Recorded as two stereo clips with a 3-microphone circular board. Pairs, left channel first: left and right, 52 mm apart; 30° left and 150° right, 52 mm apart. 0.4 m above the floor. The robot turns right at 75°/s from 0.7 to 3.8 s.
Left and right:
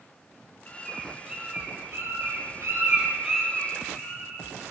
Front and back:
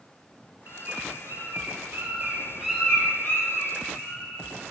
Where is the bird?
155° left, 8.5 m; by 4.4 s 30° left, 8.5 m.